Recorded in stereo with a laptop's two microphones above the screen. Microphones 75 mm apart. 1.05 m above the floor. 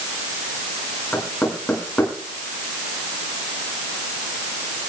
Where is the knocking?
20° left (ahead or behind), 6.5 m.